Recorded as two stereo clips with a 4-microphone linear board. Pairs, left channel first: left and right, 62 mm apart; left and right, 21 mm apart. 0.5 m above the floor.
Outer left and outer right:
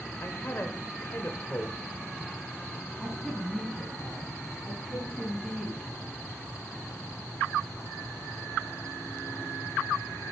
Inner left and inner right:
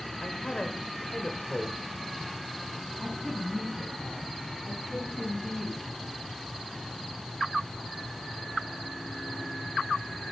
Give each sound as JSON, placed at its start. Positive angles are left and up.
{"t": 0.2, "sound": "a man speaking", "side_deg": 40, "distance_m": 1.4}
{"t": 3.0, "sound": "a woman speaking", "side_deg": 5, "distance_m": 3.5}